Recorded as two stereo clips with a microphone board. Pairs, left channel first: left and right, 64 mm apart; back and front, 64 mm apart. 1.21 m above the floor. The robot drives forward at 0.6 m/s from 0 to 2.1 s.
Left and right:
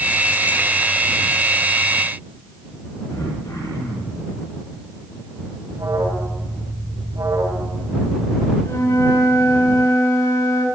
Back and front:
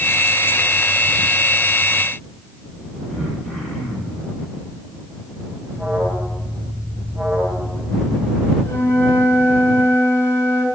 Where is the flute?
130° left, 9.5 m.